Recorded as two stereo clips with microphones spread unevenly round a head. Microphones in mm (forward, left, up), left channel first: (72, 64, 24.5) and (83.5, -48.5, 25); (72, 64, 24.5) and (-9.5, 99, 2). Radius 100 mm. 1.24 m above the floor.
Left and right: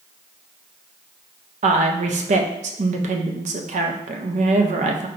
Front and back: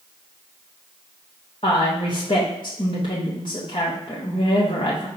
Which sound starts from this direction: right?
A woman speaking, at 1.6 s.